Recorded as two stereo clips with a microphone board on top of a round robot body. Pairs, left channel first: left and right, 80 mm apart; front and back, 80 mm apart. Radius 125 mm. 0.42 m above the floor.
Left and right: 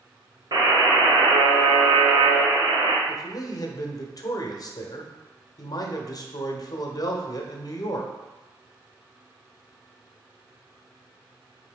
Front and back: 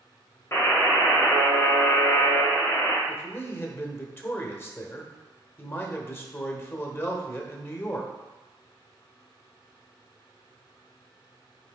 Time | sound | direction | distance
0.5 | a buzzer | 60° right | 1.8 m
3.1 | a man speaking | 55° left | 1.4 m